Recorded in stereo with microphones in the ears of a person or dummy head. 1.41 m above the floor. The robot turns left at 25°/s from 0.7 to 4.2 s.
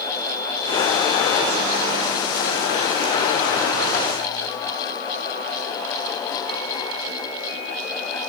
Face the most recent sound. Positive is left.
No sound to turn to.